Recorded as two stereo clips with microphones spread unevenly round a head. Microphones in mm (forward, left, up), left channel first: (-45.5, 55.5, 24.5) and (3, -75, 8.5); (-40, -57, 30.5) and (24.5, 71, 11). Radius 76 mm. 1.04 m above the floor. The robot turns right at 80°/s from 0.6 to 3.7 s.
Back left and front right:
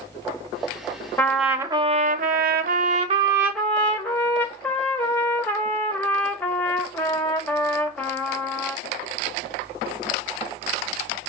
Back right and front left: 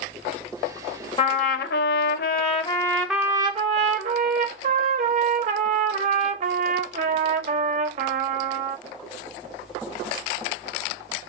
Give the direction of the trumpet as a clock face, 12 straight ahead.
6 o'clock.